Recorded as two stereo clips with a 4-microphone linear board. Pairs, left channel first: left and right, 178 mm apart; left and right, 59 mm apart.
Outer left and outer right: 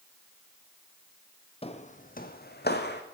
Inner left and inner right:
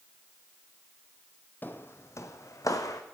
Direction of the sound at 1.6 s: 35° left (ahead or behind).